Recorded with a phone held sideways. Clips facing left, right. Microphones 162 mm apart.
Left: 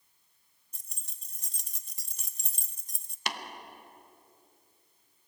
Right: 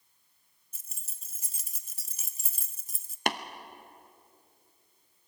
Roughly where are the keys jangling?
Centre.